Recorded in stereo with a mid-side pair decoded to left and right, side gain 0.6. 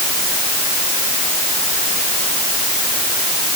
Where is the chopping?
No chopping in this recording.